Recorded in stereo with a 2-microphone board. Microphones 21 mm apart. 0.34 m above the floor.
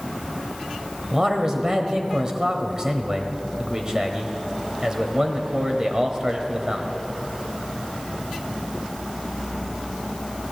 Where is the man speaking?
35° right (ahead or behind), 1.2 m.